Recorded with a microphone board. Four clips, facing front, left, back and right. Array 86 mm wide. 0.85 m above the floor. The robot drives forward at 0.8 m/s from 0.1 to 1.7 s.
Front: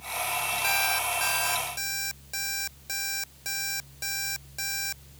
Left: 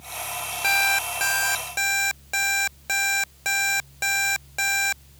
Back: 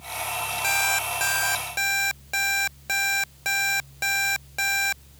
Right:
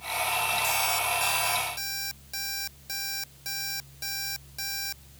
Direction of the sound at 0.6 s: 100° left.